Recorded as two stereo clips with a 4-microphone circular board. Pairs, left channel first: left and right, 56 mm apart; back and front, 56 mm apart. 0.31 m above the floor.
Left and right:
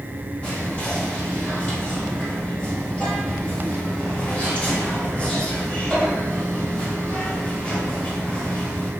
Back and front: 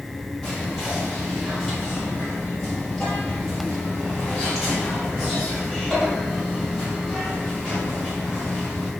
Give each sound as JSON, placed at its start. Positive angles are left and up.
{"t": 0.4, "sound": "whispering", "azimuth_deg": 85, "distance_m": 1.5}